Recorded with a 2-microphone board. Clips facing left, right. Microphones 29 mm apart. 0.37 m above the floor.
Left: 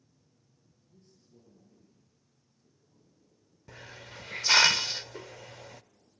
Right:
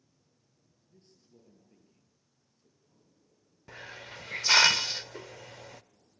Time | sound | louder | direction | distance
0.9 | a man speaking | even | 55° right (ahead or behind) | 8 m
3.7 | a hiss | right 3 dB | 15° right (ahead or behind) | 0.6 m